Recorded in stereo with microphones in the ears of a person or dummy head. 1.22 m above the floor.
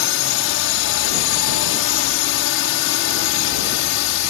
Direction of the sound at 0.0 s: 65° left (ahead or behind).